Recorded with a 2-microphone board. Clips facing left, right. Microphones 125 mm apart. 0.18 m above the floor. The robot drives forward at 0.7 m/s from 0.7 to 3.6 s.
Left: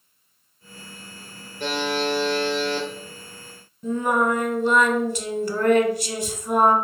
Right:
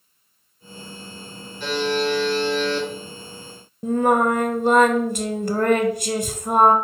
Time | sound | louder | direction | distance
1.6 | a buzzer | right 2 dB | 50° left (ahead or behind) | 2 m
3.8 | singing | right 4 dB | 50° right (ahead or behind) | 0.6 m